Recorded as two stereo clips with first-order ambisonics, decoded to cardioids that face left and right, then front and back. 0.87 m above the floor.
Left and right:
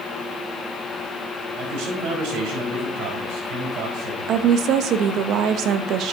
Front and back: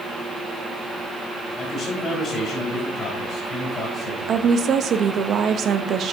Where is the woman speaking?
130° right, 0.6 m.